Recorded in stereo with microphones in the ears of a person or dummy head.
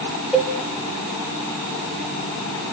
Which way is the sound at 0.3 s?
5° right (ahead or behind).